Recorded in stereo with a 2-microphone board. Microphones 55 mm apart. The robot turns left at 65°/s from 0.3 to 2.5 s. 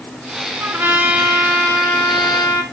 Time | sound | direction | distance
0.6 | a trumpet | 130° right | 4 m